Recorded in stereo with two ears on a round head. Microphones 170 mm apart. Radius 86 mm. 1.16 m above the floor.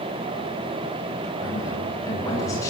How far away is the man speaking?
About 9.5 m.